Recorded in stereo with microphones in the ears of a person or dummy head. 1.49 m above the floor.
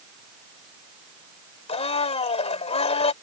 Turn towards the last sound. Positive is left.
turn(degrees=35)  # may be behind; listen again after turning